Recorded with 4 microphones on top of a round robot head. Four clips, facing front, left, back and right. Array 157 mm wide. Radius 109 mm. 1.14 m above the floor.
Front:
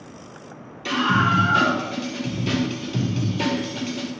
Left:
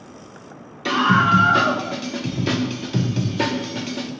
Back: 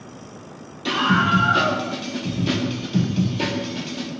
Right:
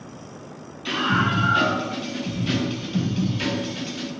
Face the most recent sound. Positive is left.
turn(degrees=85)